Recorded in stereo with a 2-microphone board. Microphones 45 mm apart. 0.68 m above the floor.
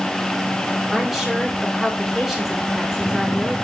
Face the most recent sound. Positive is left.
turn(degrees=-10)  # may be behind; listen again after turning